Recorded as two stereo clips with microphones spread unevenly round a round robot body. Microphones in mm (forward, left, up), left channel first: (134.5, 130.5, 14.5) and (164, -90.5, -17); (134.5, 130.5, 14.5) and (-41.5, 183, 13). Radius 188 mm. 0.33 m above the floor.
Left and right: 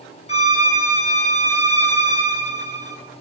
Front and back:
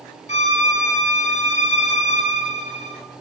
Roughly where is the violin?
Ahead left.